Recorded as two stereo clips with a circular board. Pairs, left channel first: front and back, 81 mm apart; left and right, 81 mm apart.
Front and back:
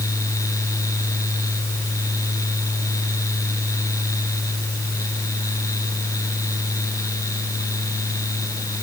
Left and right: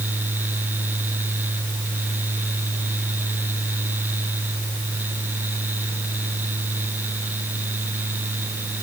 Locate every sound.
Only background noise.